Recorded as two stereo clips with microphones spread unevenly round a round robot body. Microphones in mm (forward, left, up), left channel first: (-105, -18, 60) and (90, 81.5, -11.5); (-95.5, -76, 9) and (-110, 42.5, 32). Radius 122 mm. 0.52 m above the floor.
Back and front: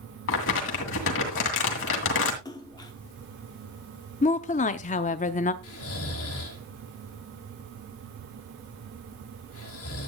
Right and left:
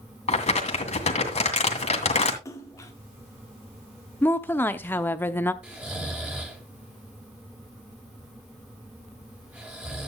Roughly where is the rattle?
I don't hear a rattle.